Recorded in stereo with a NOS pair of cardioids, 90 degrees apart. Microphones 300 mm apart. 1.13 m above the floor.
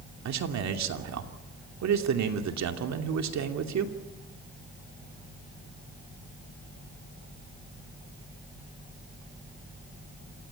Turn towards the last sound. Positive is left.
turn(degrees=-60)